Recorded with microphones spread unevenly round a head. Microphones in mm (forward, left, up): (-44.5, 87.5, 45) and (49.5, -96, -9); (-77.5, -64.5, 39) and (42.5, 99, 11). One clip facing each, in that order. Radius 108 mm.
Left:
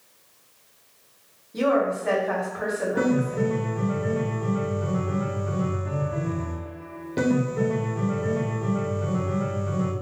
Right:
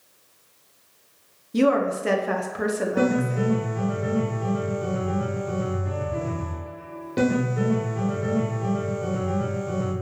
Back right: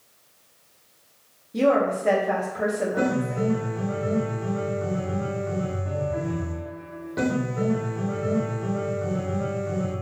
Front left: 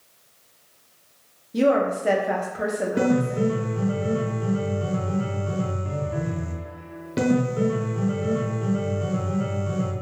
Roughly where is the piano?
Ahead left.